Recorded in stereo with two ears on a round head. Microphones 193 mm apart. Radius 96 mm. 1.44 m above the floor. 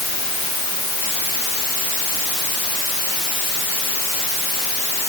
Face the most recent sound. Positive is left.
No sound to turn to.